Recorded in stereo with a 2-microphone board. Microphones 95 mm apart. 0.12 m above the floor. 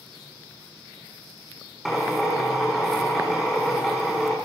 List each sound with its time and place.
1.9 s a drill: centre (ahead or behind), 4.5 m